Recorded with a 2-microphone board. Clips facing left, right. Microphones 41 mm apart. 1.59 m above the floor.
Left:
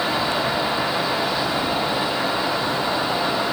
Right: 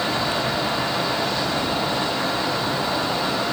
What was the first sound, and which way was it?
Only background noise.